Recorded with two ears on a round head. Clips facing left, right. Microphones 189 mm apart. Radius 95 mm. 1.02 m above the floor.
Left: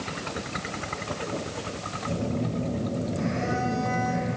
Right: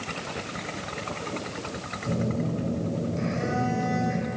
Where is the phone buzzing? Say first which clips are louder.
Right 1 dB; 30° right (ahead or behind), 2.5 m.